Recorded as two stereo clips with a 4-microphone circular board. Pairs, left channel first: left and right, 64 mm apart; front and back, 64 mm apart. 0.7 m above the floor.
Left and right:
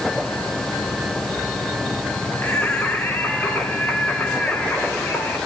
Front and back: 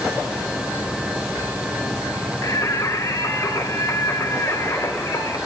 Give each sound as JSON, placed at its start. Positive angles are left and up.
{"t": 2.4, "sound": "singing", "azimuth_deg": 30, "distance_m": 2.5}